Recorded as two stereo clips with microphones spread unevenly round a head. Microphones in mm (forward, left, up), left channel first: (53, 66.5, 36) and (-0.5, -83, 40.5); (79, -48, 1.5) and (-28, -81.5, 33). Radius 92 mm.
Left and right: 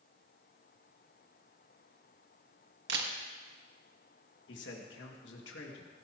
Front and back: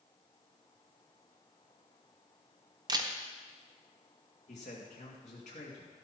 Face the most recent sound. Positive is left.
turn(degrees=70)